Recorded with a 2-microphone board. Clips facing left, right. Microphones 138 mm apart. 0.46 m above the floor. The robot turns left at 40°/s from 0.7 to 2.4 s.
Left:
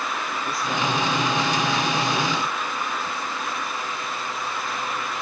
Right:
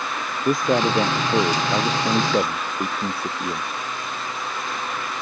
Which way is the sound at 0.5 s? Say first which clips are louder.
Right 8 dB; 50° right.